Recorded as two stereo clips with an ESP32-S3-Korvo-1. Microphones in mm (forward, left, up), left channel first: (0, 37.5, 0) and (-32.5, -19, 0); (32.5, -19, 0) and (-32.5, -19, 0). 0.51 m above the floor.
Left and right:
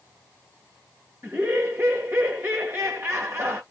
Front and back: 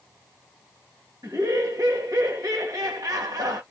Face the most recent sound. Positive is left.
turn(degrees=-160)